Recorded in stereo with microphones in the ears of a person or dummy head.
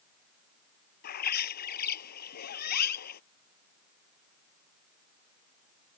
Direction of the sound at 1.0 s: 55° left (ahead or behind).